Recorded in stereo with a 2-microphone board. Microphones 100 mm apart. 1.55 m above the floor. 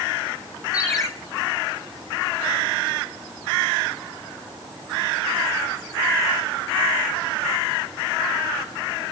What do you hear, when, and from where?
0.7 s a ringtone: 30° left (ahead or behind), 4 m